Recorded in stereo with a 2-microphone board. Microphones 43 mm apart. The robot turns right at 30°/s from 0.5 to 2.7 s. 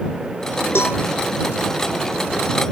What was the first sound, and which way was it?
A cowbell, 85° left.